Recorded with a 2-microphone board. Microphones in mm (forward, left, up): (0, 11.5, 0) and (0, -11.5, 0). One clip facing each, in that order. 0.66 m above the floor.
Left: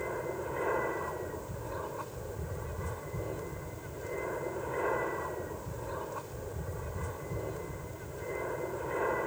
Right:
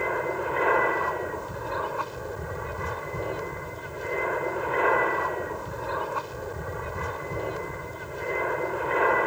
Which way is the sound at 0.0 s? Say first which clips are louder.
Right 9 dB; 50° right (ahead or behind).